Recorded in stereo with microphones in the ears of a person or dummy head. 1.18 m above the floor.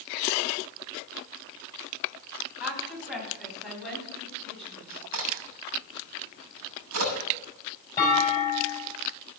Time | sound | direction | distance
2.6 | a woman speaking | 5° right (ahead or behind) | 7 m
5.1 | a crack | 85° right | 6.5 m
8.0 | a clunk | 15° left (ahead or behind) | 6 m